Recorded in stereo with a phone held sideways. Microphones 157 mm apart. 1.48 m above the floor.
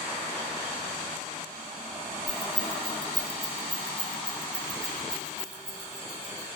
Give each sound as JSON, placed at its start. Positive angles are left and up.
{"t": 2.3, "sound": "keys jangling", "side_deg": -20, "distance_m": 1.6}